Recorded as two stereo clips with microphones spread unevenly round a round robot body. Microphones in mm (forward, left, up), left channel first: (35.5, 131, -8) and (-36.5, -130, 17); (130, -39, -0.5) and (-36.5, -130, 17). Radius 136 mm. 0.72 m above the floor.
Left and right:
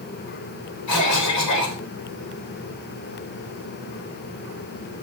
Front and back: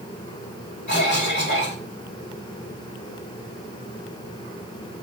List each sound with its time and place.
0.9 s a cough: 90° left, 3.5 m